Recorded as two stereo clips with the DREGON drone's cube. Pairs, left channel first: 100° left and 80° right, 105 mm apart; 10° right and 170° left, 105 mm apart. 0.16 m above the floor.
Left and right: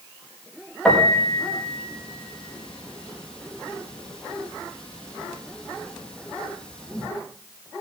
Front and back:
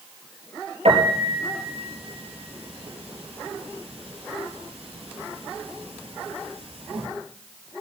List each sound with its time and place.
0.8 s a piano: 175° right, 3.5 m